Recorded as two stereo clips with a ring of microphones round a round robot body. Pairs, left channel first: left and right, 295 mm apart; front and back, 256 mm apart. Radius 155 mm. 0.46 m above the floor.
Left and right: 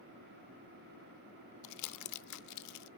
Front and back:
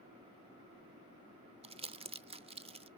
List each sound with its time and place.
1.6 s crumpling: 110° left, 0.7 m